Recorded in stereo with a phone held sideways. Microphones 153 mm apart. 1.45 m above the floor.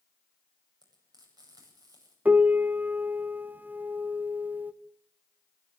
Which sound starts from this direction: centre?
A piano, at 2.2 s.